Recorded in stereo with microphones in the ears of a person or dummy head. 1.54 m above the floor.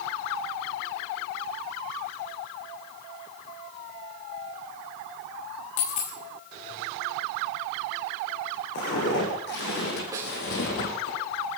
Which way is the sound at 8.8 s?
55° left (ahead or behind).